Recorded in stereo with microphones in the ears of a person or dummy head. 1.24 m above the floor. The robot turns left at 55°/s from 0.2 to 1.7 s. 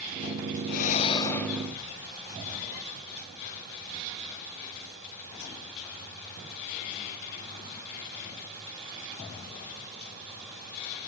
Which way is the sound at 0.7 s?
50° left.